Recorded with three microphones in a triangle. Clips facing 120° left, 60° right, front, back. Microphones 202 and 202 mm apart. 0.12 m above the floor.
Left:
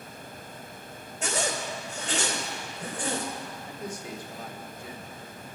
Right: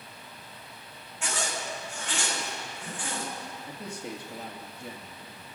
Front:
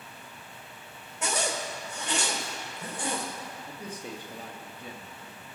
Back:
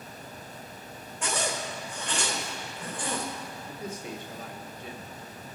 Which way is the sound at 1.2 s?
70° left.